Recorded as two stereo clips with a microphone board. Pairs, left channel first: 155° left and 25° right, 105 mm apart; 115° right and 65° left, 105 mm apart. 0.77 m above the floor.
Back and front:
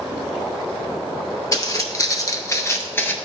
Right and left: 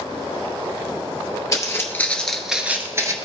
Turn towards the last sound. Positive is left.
turn(degrees=100)